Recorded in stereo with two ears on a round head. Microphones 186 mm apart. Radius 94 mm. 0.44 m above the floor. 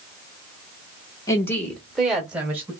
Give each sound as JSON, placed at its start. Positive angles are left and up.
{"t": 1.3, "sound": "a woman speaking", "side_deg": 15, "distance_m": 0.9}